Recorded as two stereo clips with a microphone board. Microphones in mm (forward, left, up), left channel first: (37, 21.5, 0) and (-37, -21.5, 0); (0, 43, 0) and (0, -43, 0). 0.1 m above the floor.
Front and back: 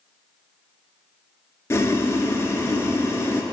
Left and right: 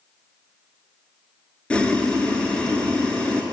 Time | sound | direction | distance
1.7 | boiling | 25° left | 0.6 m